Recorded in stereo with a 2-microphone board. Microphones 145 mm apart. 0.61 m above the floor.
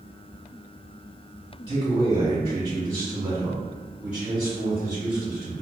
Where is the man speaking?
30° right (ahead or behind), 1.4 m; by 5.6 s centre (ahead or behind), 2.5 m.